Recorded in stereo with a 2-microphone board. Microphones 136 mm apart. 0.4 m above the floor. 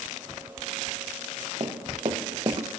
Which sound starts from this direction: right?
Running footsteps, at 1.6 s.